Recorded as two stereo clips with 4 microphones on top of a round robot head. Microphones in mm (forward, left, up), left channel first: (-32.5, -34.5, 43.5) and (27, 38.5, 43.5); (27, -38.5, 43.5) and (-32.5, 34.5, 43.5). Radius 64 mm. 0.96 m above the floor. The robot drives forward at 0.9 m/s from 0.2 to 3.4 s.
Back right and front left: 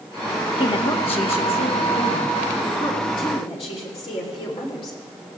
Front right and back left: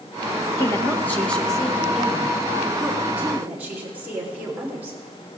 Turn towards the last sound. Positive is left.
turn(degrees=-160)